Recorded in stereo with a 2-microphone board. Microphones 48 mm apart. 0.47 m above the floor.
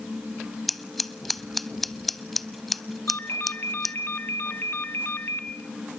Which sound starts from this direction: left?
A ringtone, at 3.1 s.